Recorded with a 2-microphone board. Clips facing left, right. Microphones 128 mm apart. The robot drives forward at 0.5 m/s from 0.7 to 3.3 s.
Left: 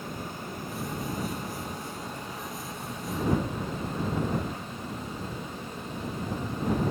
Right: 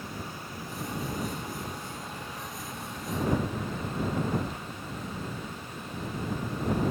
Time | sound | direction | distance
0.0 | running water | 50° left (ahead or behind) | 2.5 m